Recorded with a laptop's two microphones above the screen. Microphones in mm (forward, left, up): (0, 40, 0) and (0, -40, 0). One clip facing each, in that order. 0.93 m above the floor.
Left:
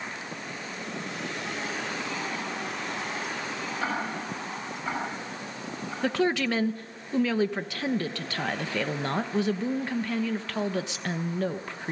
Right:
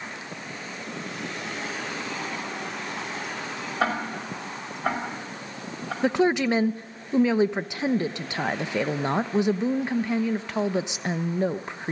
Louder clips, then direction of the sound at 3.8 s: Right 6 dB; 70° right (ahead or behind).